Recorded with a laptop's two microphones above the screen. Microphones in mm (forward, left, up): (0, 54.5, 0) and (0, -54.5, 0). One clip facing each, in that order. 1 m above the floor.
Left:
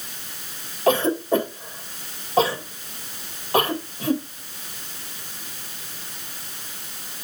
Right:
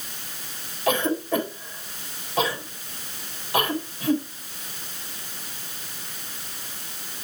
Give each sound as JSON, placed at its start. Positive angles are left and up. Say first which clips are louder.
{"t": 0.9, "sound": "a cough", "louder": "left 4 dB", "side_deg": 35, "distance_m": 3.5}